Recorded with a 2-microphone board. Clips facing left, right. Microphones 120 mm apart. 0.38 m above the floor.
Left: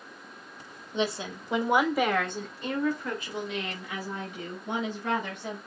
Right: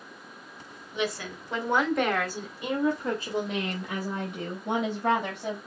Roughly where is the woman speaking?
Left.